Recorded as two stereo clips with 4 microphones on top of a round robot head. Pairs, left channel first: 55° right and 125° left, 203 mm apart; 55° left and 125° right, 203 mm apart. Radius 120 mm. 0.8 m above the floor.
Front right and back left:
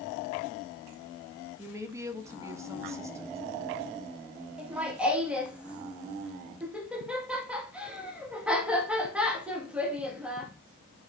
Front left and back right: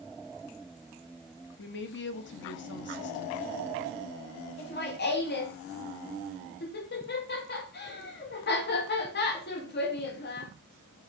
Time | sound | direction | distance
1.6 | a woman speaking | 50° left | 1.2 m
4.6 | laughter | 40° left | 1.6 m